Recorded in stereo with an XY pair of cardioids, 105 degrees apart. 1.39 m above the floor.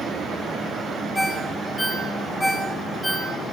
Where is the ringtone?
15° left, 5.5 m.